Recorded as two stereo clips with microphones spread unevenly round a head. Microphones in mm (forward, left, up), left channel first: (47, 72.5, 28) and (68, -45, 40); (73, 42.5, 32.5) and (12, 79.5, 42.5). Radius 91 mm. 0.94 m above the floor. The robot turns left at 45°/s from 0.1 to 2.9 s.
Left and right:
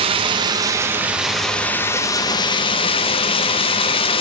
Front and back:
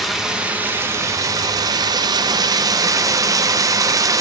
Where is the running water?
115° right, 0.8 m; by 4.2 s 120° left, 0.8 m.